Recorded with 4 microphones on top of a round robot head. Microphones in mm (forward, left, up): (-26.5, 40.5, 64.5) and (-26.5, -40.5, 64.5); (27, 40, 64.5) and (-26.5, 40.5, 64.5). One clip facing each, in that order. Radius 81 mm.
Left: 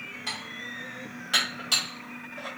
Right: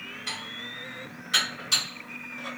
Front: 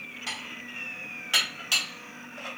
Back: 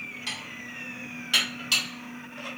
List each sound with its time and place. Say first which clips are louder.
0.3 s dishes clattering: left 1 dB, even; 70° left, 1.9 m